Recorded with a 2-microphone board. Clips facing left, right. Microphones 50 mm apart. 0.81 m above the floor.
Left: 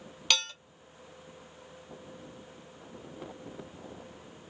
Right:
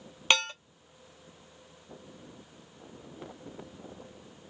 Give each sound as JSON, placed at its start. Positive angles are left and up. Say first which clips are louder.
{"t": 0.3, "sound": "dishes clattering", "louder": "right 4 dB", "side_deg": -30, "distance_m": 0.9}